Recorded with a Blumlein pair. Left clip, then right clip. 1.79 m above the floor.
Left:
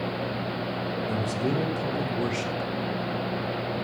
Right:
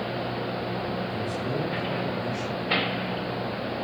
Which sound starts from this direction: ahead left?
A man speaking, at 1.1 s.